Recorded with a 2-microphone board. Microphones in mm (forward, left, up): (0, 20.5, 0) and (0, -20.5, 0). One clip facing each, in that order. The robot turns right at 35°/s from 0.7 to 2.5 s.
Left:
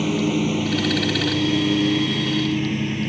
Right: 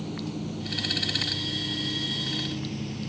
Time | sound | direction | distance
0.0 | a lawn mower | 70° left (ahead or behind) | ?